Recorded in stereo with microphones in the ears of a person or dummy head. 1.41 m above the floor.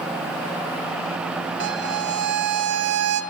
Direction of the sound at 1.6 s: 55° right (ahead or behind).